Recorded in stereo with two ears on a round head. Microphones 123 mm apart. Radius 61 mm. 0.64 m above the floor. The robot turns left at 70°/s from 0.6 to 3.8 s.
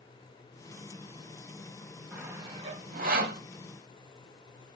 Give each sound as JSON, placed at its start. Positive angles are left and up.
{"t": 2.1, "sound": "sawing", "side_deg": -5, "distance_m": 1.1}